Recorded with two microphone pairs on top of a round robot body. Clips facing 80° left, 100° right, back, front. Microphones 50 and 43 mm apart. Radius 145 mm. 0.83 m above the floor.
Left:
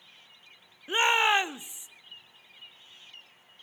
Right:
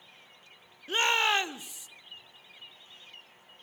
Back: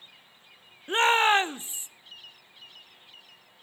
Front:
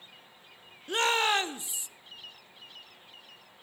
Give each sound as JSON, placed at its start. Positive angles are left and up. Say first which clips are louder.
{"t": 0.9, "sound": "a shout", "louder": "left 3 dB, back 5 dB", "azimuth_deg": 145, "distance_m": 0.9}